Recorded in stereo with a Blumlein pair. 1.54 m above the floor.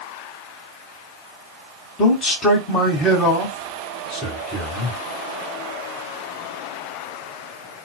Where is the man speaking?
20° left, 1.1 m.